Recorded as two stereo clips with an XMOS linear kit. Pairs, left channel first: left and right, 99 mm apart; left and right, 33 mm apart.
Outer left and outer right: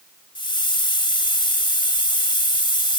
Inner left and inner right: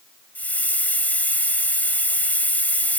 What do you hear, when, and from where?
0.3 s a hiss: 55° left (ahead or behind)